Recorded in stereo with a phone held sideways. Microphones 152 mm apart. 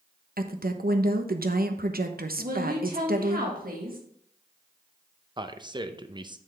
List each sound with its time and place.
0.4 s a woman speaking: 70° right (ahead or behind), 0.8 m
2.4 s a woman speaking: 65° right (ahead or behind), 1.8 m
5.4 s a man speaking: 30° right (ahead or behind), 0.6 m